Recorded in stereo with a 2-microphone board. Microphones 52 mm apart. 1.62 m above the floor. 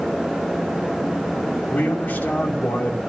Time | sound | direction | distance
1.7 | a man speaking | 35° left (ahead or behind) | 2.5 m